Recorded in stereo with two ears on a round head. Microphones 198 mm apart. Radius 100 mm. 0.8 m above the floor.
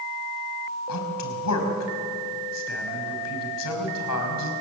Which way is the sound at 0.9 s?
80° left.